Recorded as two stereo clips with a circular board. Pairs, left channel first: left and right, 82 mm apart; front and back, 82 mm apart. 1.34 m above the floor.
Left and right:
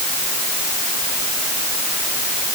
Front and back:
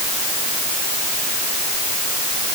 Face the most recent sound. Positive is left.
No sound to turn to.